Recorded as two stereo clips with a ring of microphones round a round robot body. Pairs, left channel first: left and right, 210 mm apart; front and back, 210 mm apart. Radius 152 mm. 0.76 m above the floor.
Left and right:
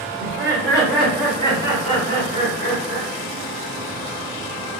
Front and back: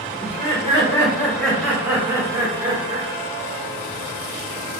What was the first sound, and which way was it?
Laughter, 30° right.